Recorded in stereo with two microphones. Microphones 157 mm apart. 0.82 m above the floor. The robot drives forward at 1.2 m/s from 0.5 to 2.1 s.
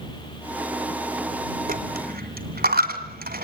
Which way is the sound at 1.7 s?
70° right (ahead or behind).